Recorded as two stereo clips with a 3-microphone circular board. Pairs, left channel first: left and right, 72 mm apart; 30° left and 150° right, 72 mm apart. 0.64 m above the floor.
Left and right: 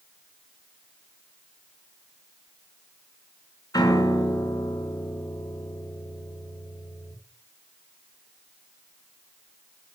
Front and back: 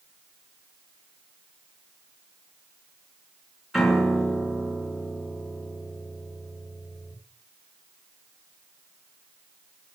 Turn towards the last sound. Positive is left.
turn(degrees=120)